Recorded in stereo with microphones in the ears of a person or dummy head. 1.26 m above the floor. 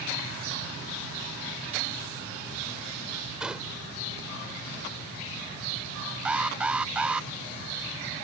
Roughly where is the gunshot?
Centre.